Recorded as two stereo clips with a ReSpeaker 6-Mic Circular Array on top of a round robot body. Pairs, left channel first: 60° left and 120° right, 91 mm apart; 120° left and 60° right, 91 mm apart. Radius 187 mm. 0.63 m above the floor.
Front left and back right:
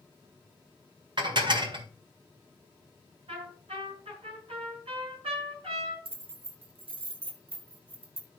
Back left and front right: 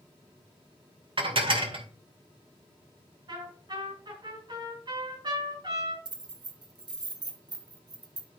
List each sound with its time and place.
1.2 s dishes clattering: 85° right, 2.0 m
3.3 s a trumpet: 100° right, 6 m
6.0 s keys jangling: 100° right, 1.5 m